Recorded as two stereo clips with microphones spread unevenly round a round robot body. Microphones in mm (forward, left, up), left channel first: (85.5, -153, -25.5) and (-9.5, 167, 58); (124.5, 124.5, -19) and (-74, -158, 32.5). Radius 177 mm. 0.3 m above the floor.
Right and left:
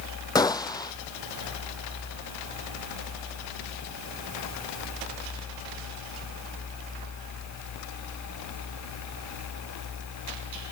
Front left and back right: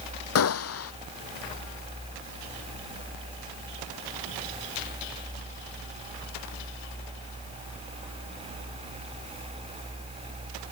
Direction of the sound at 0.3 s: 5° left.